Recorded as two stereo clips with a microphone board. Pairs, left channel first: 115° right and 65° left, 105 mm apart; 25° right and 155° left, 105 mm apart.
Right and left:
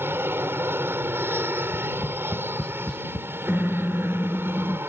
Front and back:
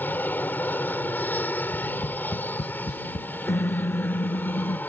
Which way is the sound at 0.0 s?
30° left.